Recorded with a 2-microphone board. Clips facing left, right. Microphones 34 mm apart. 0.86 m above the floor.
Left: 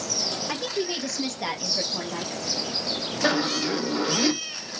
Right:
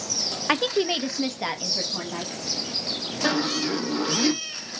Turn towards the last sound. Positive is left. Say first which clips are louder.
# even
turn(degrees=10)  # may be behind; listen again after turning